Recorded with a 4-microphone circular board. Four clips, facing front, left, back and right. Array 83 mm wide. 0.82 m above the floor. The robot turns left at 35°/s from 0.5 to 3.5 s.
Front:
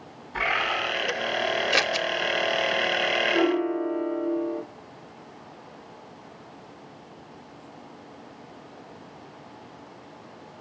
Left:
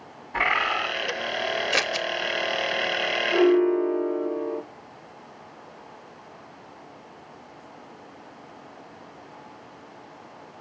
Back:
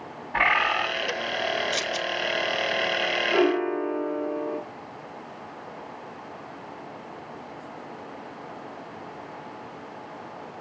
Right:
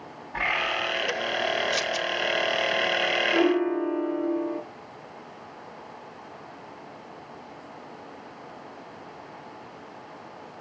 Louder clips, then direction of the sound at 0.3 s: Left 4 dB, back 4 dB; 170° left.